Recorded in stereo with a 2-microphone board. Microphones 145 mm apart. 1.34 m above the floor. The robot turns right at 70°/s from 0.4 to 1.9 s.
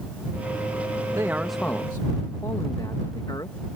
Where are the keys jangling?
No keys jangling in this recording.